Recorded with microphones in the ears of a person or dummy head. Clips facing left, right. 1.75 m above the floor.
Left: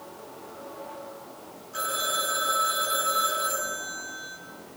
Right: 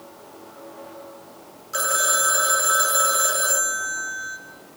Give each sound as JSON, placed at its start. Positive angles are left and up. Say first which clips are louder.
{"t": 1.7, "sound": "a phone ringing", "louder": "right 6 dB", "side_deg": -80, "distance_m": 4.5}